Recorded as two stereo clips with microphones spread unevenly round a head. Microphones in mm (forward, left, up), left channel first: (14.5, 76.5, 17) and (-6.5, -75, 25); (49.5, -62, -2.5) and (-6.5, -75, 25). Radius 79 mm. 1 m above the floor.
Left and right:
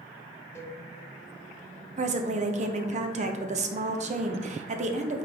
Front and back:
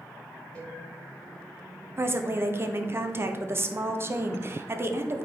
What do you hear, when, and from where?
0.6 s a cowbell: 20° left, 1.0 m
2.0 s a woman speaking: 105° right, 0.9 m